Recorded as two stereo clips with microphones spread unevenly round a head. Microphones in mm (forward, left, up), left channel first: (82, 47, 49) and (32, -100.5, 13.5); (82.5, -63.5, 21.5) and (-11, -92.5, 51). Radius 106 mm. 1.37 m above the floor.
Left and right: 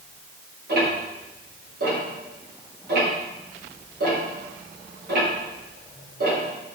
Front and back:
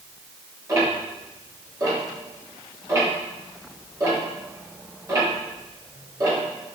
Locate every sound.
0.7 s ticking: 110° right, 3 m